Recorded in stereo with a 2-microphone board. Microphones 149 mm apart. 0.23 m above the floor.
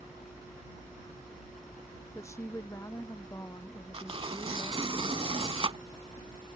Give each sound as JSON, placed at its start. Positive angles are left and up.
{"t": 2.1, "sound": "a woman speaking", "side_deg": 20}
{"t": 3.9, "sound": "tearing paper", "side_deg": -35}